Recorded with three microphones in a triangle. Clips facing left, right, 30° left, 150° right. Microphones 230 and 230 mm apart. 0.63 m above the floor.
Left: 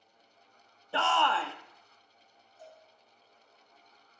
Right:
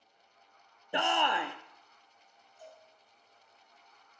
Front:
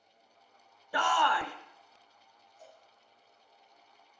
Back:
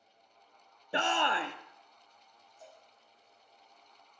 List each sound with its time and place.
0.9 s a shout: 140° right, 0.6 m
2.6 s a cowbell: 45° left, 4.5 m